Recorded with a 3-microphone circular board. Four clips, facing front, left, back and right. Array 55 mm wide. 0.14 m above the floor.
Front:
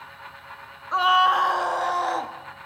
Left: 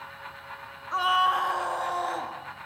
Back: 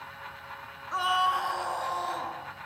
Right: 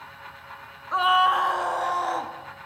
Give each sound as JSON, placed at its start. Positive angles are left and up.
{"t": 0.9, "sound": "a scream", "azimuth_deg": -25, "distance_m": 1.2}